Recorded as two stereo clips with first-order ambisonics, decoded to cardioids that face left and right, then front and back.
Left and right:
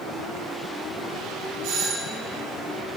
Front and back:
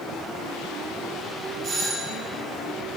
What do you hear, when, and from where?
1.6 s a doorbell: 120° right, 4.5 m